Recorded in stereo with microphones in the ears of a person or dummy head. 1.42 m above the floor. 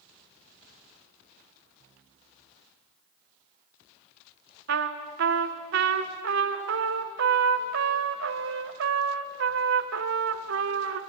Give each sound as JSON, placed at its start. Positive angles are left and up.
{"t": 4.7, "sound": "a trumpet", "side_deg": -65, "distance_m": 1.3}